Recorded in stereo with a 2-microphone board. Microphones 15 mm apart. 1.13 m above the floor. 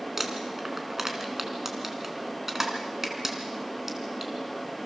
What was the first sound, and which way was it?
Crumpling, 30° right (ahead or behind).